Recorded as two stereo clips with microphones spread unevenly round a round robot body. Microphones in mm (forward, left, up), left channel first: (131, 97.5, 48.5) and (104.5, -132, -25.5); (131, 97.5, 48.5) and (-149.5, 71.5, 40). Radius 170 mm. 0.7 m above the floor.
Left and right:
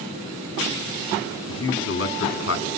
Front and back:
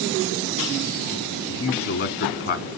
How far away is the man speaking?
About 2.0 m.